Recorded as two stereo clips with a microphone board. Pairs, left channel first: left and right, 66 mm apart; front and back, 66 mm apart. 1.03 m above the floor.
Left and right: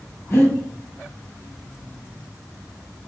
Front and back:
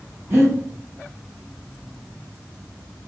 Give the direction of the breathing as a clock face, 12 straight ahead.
8 o'clock.